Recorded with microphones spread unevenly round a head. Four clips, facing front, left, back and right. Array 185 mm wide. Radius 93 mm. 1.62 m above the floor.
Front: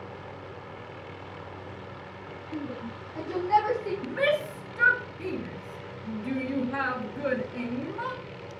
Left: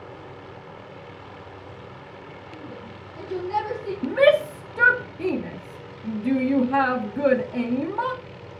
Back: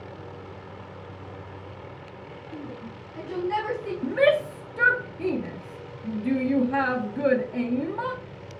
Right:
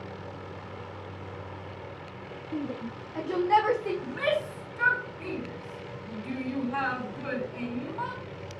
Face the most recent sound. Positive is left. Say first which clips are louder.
# left 17 dB, back 7 dB
turn(degrees=110)